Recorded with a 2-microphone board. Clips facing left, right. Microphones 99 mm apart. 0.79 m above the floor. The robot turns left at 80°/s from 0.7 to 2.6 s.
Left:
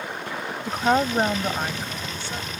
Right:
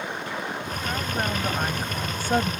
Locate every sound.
0.7 s a woman speaking: 75° left; by 2.5 s 70° right